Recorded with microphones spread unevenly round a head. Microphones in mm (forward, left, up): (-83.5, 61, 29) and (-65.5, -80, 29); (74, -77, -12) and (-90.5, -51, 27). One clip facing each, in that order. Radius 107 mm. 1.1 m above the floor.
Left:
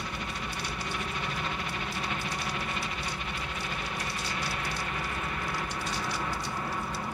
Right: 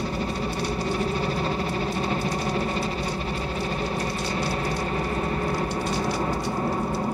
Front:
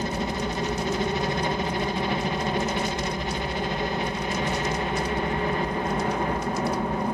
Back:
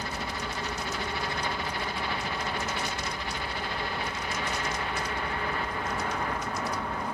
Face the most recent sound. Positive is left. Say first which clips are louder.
# right 10 dB, front 8 dB
turn(degrees=-45)